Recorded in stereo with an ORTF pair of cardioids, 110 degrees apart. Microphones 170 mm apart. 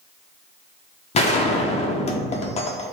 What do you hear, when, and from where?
1.1 s a gunshot: 40° left, 1.0 m